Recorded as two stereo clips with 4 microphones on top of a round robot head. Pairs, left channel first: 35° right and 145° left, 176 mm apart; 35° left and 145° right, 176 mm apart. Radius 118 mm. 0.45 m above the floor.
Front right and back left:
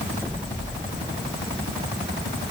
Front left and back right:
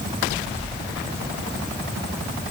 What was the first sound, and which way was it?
Only background noise.